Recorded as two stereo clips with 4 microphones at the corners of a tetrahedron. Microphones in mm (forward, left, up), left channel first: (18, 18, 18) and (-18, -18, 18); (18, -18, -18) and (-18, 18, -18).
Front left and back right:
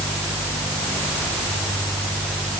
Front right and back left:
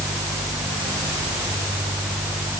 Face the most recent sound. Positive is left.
No sound to turn to.